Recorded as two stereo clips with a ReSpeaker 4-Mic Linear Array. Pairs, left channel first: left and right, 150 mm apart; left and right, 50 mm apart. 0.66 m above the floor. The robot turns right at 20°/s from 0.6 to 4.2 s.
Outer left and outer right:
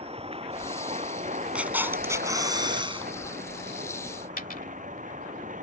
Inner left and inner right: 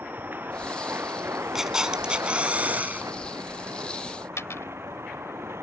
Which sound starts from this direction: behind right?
A vehicle, at 0.0 s.